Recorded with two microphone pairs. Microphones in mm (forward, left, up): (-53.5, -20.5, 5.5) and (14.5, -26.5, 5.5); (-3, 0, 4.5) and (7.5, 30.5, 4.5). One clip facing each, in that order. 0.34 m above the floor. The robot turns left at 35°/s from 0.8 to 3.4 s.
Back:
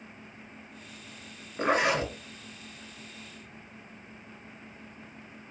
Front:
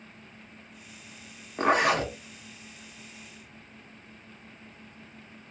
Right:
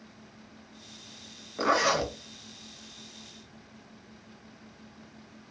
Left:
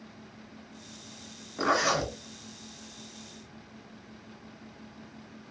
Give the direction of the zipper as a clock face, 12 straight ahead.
1 o'clock.